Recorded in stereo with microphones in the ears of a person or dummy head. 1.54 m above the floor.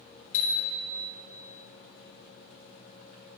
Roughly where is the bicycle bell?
Left.